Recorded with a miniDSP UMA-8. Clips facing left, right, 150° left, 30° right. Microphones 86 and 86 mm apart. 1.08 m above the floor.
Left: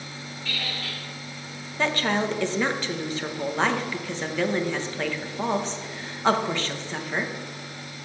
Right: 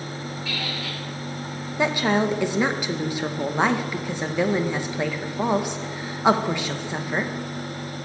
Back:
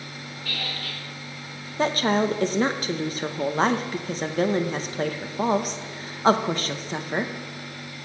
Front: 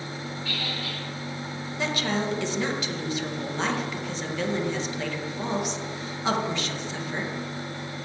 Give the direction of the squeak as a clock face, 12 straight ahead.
6 o'clock.